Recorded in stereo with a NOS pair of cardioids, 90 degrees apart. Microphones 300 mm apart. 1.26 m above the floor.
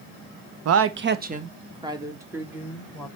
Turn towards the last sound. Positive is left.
turn(degrees=0)